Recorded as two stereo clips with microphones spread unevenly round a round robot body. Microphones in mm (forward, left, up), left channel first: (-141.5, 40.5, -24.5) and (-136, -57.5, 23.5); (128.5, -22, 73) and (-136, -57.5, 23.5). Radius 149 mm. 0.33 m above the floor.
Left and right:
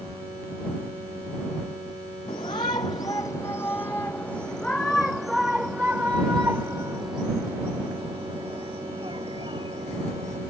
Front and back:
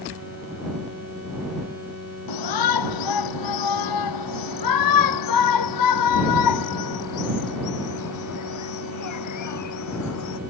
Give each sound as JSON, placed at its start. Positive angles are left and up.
{"t": 2.3, "sound": "a shout", "azimuth_deg": 20}